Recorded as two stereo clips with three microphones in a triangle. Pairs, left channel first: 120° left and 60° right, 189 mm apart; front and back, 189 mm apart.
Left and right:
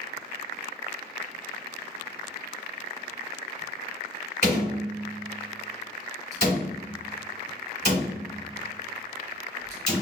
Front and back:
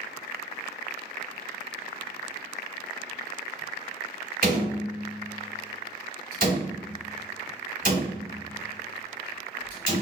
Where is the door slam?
145° left, 2.5 m.